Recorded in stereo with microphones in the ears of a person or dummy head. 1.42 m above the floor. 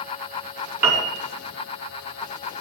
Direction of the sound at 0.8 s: 10° right (ahead or behind).